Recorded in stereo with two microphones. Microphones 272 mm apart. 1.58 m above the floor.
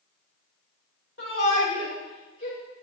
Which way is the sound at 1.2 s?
55° left (ahead or behind).